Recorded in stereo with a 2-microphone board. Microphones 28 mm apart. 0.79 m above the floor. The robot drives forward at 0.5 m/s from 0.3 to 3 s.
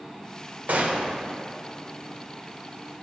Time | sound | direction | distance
0.7 | a gunshot | 70° right (ahead or behind) | 1.1 m